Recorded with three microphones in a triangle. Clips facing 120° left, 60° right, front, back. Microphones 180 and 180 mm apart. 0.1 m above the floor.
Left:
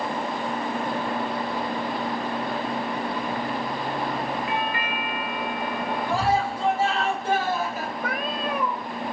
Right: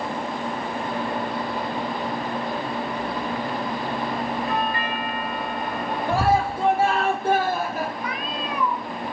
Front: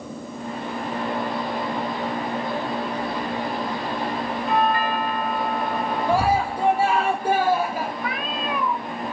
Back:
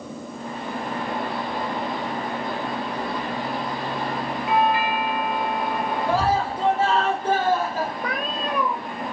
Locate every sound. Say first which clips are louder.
4.5 s a doorbell: right 2 dB, back 1 dB; 100° right, 2.5 m
6.1 s a scream: right 4 dB, front 2 dB; 75° right, 1.8 m
8.0 s a cat meowing: left 1 dB, even; 140° left, 1.1 m